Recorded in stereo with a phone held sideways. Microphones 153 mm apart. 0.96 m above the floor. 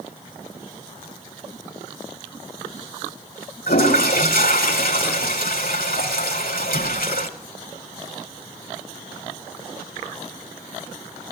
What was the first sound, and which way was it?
A toilet flushing, 75° left (ahead or behind).